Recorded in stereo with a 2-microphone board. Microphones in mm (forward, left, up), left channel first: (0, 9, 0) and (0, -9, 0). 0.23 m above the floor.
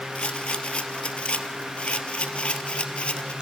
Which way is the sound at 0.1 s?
80° left.